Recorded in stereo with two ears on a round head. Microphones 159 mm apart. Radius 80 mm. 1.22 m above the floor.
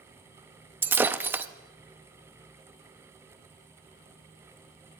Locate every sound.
0.8 s breaking glass: 10° right (ahead or behind), 0.6 m